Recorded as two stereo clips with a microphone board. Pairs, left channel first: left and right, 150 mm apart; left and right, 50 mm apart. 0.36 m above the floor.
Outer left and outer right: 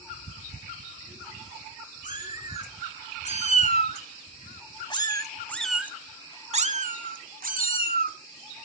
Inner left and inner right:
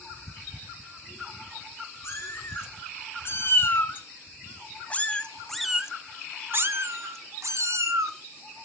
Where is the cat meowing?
60° left (ahead or behind), 3 m; by 8.2 s 80° right, 1.6 m.